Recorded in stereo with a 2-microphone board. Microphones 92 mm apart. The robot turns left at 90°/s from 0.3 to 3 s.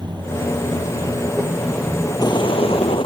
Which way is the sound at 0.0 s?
50° right.